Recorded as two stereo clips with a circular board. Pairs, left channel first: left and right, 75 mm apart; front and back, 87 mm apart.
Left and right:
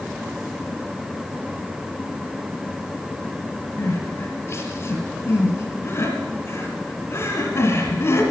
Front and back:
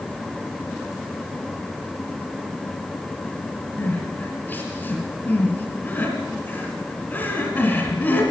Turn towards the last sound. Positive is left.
turn(degrees=60)